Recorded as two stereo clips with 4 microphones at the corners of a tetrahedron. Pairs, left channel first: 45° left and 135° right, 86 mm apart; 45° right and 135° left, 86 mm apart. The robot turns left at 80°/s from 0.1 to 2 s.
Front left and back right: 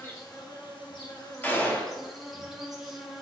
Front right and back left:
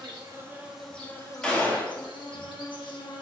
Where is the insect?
105° left, 1.0 m; by 3.2 s 50° right, 1.0 m.